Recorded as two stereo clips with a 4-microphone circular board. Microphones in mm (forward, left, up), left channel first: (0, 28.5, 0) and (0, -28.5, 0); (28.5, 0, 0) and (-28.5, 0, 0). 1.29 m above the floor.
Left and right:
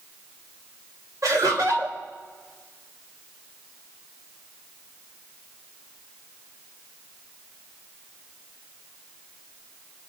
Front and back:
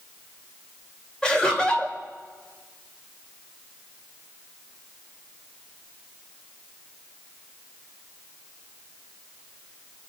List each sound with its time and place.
1.2 s laughter: 75° right, 3 m